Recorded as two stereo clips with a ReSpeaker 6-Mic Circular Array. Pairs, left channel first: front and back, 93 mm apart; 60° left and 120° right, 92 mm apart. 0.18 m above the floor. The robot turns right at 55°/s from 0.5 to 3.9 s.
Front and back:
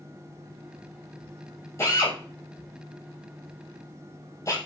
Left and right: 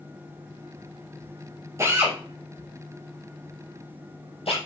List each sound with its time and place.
1.8 s a drill: 60° right, 5 m; by 4.6 s 55° left, 5 m